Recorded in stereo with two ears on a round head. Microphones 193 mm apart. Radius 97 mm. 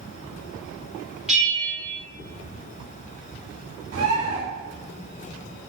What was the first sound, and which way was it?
A bell, 5° right (ahead or behind).